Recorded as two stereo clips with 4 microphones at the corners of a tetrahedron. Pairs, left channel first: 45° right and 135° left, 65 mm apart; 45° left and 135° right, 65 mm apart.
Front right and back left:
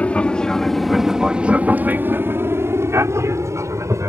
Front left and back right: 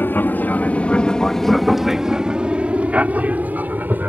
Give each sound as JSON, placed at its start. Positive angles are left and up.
{"t": 0.0, "sound": "an aircraft", "azimuth_deg": 10}